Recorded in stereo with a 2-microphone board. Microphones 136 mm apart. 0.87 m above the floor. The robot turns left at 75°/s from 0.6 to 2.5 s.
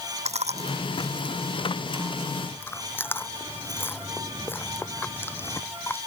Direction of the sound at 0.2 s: 55° right (ahead or behind).